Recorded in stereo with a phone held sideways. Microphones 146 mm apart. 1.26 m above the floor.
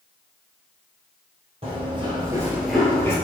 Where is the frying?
No frying in this recording.